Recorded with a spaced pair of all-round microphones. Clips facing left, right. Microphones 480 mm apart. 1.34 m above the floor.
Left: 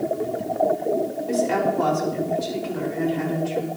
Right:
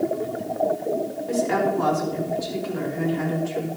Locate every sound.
1.3 s a woman speaking: 50° left (ahead or behind), 4.5 m